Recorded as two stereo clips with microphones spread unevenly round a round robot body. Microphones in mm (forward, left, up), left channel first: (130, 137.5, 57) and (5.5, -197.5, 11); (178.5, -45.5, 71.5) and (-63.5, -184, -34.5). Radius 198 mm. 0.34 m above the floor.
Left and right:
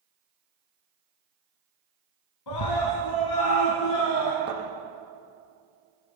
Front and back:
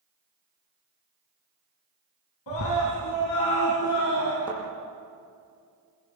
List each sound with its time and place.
2.5 s a scream: 45° left, 3.5 m; by 4.4 s 35° left, 4.5 m
4.5 s a thud: 50° right, 7 m